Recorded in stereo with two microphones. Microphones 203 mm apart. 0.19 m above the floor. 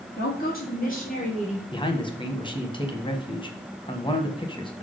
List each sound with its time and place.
0.2 s a woman speaking: 50° left (ahead or behind), 3.5 m; by 1.6 s 35° left (ahead or behind), 3.5 m
1.7 s a man speaking: 25° left (ahead or behind), 1.1 m